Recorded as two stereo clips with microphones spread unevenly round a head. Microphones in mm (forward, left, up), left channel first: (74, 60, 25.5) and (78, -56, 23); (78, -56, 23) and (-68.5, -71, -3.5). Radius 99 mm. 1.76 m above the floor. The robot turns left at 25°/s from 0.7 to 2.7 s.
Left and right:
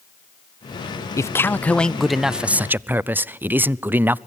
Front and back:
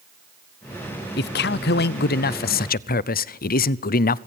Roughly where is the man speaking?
Ahead left.